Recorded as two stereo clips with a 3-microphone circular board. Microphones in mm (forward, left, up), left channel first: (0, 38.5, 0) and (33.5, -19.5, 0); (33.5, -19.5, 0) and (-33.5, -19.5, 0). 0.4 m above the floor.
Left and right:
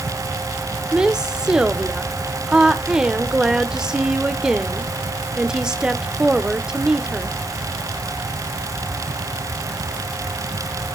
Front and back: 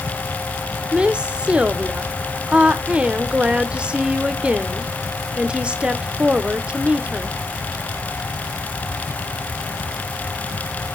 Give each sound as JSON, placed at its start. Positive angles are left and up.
{"t": 0.9, "sound": "a woman speaking", "azimuth_deg": -130, "distance_m": 0.9}